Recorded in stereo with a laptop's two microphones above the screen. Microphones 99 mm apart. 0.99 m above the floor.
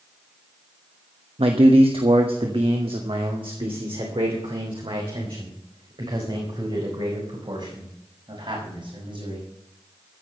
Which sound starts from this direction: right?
A man speaking, at 1.4 s.